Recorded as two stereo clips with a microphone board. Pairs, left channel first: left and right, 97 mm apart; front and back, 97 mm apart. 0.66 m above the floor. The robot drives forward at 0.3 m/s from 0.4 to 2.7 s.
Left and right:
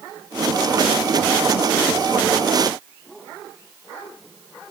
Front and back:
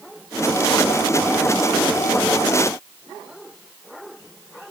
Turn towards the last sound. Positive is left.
No sound to turn to.